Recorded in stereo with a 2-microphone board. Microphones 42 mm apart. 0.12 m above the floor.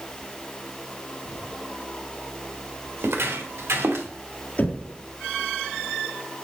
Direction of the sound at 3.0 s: 75° right (ahead or behind).